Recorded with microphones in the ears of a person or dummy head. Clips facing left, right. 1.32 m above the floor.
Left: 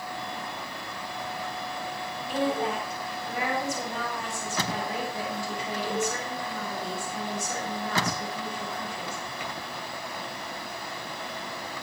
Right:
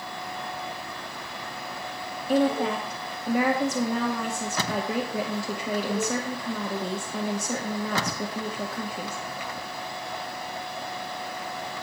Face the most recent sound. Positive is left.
turn(degrees=-60)  # may be behind; listen again after turning